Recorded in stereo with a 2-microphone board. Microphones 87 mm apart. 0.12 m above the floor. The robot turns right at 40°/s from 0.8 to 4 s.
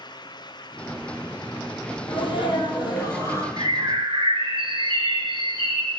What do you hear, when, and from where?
2.1 s a sneeze: 90° left, 3 m; by 3.5 s 145° left, 3 m
3.6 s a bird: 55° right (ahead or behind), 1.4 m; by 6.0 s 70° right (ahead or behind), 1.4 m